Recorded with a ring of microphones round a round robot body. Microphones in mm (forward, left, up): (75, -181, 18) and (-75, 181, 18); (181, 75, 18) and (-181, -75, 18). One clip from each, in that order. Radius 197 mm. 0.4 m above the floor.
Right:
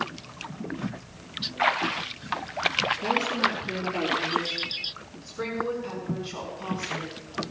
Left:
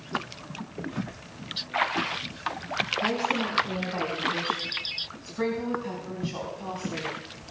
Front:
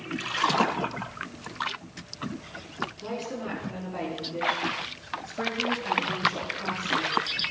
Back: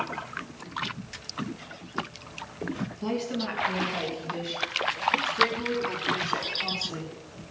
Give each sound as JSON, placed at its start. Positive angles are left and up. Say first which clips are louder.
{"t": 3.0, "sound": "a woman speaking", "louder": "right 2 dB, back 3 dB", "azimuth_deg": 135, "distance_m": 4.5}